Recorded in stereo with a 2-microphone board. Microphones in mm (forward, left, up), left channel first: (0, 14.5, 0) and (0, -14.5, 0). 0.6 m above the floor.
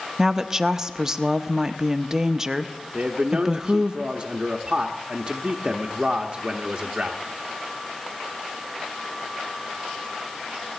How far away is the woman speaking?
About 0.6 m.